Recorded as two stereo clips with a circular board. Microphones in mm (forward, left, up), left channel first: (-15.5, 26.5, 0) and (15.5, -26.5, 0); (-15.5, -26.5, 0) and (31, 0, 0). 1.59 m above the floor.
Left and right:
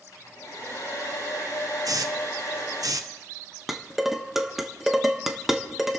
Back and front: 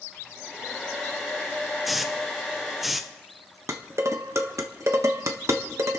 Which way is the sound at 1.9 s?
55° right.